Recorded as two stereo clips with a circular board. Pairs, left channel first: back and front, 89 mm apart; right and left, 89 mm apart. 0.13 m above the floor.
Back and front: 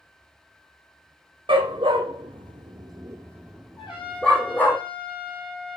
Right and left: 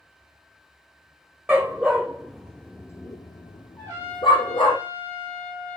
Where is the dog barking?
20° left, 1.5 m; by 4.8 s 110° right, 1.6 m.